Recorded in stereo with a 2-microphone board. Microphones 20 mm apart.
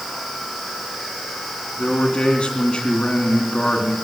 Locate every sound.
1.8 s a man speaking: 70° left (ahead or behind), 3 m